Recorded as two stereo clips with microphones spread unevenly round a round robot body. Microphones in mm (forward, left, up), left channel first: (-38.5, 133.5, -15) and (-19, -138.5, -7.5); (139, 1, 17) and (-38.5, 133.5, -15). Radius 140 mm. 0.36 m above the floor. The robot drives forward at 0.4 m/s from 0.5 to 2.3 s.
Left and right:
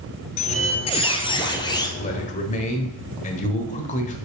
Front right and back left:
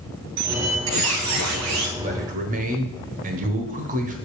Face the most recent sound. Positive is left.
turn(degrees=145)